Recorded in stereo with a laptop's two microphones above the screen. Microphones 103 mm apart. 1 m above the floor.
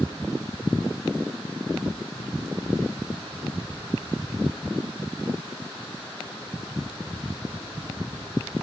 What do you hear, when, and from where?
1.9 s tapping: 45° right (ahead or behind), 0.9 m